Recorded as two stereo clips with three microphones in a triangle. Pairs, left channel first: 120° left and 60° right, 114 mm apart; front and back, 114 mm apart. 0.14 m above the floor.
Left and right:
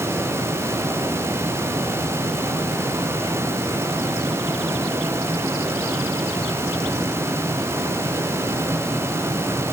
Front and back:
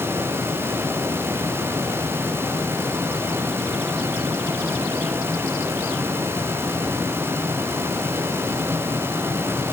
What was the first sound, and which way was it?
Only background noise.